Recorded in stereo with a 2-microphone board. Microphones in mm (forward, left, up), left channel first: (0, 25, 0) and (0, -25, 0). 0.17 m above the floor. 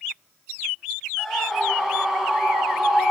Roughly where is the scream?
Centre.